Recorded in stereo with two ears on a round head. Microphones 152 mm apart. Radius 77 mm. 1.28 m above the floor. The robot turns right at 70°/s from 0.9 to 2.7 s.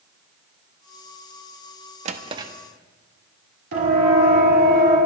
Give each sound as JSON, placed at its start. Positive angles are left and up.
{"t": 2.0, "sound": "a drawer", "side_deg": -40, "distance_m": 0.9}
{"t": 3.7, "sound": "a siren", "side_deg": -65, "distance_m": 4.5}